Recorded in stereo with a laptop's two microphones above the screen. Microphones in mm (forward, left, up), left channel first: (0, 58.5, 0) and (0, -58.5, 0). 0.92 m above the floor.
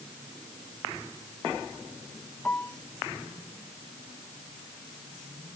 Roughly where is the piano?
Centre.